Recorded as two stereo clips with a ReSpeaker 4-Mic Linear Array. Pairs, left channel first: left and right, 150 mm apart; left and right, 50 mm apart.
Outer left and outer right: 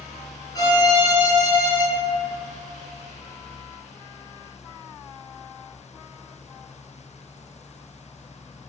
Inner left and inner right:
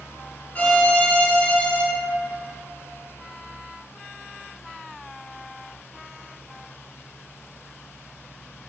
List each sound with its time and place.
0.6 s a violin: 30° left (ahead or behind), 0.6 m